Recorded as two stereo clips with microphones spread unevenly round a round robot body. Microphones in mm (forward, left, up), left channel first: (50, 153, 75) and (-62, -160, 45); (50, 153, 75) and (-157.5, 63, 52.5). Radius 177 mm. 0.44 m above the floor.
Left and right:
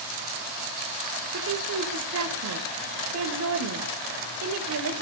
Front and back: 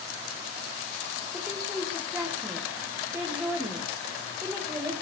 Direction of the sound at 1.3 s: 75° right.